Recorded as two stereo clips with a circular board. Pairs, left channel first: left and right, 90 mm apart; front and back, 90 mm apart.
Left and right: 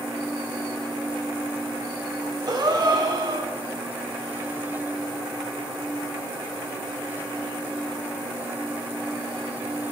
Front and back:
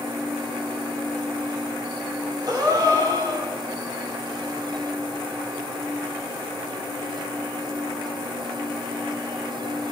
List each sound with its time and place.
2.5 s a gasp: 135° right, 3.5 m